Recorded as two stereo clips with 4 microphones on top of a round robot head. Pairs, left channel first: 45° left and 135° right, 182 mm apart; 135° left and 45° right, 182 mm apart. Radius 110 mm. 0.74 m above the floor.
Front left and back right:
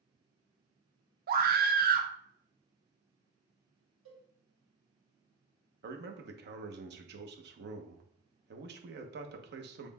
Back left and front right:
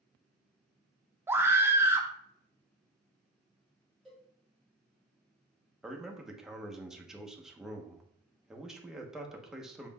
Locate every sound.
1.3 s a scream: 120° right, 0.8 m
4.0 s a cowbell: 135° right, 1.8 m
5.8 s a man speaking: 130° right, 0.9 m